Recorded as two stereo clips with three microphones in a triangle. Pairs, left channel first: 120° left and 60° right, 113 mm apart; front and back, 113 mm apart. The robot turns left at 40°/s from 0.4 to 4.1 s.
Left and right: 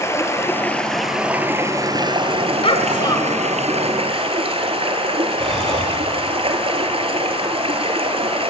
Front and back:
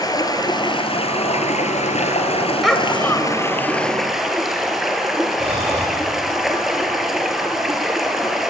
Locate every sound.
0.0 s running water: 55° left, 2 m; by 8.5 s 95° right, 2 m
2.6 s a child speaking: 90° left, 2 m; by 3.5 s 55° left, 2 m
5.4 s breathing: 150° right, 8.5 m